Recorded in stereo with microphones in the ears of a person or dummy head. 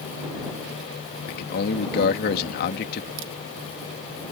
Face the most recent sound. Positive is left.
turn(degrees=-65)  # may be behind; listen again after turning